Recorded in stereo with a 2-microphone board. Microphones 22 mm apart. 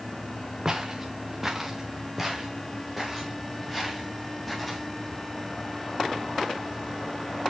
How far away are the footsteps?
About 1.3 m.